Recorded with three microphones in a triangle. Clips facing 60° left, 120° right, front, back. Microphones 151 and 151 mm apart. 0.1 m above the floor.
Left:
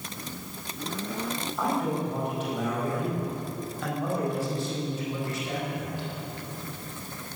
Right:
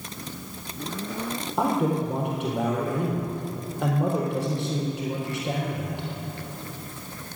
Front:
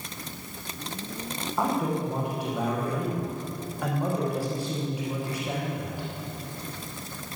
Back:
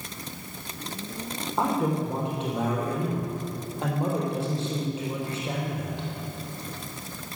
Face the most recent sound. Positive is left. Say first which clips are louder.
# right 5 dB, back 1 dB
turn(degrees=-115)